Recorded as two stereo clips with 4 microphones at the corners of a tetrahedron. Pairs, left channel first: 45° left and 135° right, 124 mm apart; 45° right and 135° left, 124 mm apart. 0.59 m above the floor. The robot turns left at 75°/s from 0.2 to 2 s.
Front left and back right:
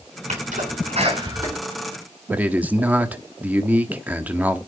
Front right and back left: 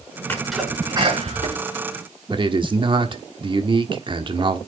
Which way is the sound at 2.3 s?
150° left.